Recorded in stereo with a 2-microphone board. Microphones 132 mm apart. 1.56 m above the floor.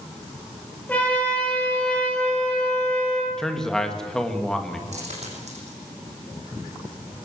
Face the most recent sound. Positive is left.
turn(degrees=-60)  # may be behind; listen again after turning